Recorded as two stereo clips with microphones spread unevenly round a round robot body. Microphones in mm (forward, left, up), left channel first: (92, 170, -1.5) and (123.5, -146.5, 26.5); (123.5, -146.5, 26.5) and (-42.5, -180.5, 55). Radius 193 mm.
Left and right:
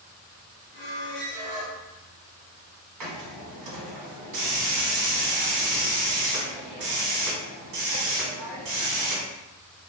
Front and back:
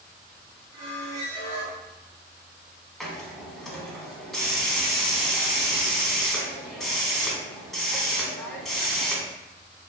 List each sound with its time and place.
0.7 s a squeak: 140° left, 1.6 m
3.0 s a hiss: 70° right, 0.9 m